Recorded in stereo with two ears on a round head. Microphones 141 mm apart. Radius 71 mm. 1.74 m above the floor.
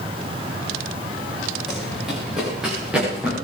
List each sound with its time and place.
1.7 s running footsteps: centre (ahead or behind), 8.5 m; by 3.3 s 10° right (ahead or behind), 9.5 m